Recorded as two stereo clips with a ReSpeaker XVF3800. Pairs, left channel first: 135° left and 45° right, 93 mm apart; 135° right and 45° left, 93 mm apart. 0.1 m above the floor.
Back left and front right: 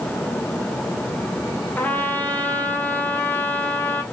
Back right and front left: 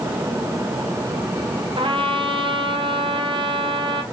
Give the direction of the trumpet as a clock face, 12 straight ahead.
10 o'clock.